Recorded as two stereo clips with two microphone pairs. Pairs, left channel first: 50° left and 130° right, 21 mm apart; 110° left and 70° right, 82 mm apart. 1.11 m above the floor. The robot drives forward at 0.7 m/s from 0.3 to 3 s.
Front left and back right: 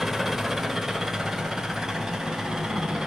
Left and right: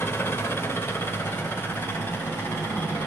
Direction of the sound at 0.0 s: 155° left.